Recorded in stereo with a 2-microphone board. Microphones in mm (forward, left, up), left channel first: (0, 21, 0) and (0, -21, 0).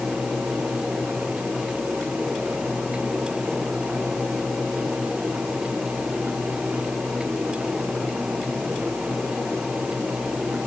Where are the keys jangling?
No keys jangling in this recording.